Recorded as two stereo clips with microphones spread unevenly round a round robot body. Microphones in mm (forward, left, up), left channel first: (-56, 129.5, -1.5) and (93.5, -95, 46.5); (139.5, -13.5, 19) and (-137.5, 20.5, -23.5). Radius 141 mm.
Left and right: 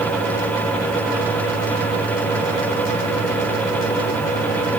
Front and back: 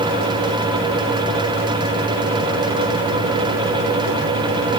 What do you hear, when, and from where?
Only background noise.